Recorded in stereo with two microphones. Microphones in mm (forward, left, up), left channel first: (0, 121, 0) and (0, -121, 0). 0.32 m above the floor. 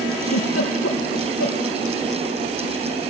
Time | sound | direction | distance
0.2 | a giggle | 80° left | 4 m